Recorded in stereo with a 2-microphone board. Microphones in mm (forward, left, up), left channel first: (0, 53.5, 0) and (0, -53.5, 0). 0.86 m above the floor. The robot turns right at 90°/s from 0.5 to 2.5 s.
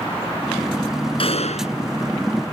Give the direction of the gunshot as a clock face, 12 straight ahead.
10 o'clock.